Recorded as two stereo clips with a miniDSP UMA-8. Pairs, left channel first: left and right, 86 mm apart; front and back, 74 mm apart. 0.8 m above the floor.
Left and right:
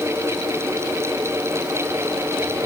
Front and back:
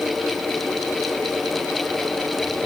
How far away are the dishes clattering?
I don't hear dishes clattering.